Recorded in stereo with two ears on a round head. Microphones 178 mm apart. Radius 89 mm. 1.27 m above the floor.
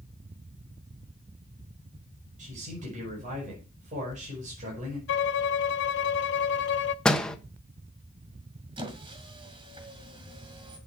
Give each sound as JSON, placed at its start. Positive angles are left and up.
{"t": 2.4, "sound": "a man speaking", "side_deg": -40, "distance_m": 5.0}
{"t": 5.1, "sound": "a violin", "side_deg": 60, "distance_m": 0.6}
{"t": 7.0, "sound": "a door slam", "side_deg": 5, "distance_m": 0.7}
{"t": 8.8, "sound": "a squeak", "side_deg": -25, "distance_m": 1.9}